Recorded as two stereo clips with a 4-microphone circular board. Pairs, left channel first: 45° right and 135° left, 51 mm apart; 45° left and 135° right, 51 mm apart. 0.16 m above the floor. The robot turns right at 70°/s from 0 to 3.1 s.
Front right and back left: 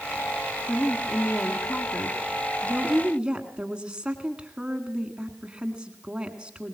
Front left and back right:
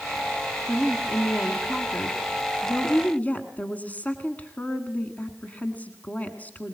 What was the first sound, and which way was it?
A woman speaking, 95° right.